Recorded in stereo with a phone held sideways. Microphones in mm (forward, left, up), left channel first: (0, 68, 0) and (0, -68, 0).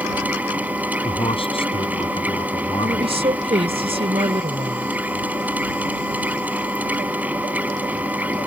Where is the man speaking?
45° left (ahead or behind).